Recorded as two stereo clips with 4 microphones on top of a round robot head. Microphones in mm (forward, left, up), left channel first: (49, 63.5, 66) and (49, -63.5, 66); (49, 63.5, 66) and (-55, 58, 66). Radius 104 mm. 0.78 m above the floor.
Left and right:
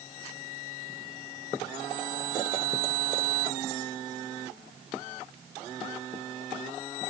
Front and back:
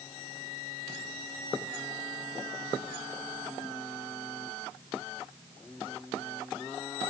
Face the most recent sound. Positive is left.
No sound to turn to.